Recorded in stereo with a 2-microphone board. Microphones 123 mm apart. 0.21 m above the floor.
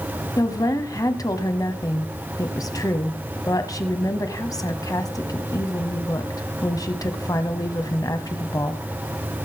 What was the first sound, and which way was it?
A woman speaking, 35° left (ahead or behind).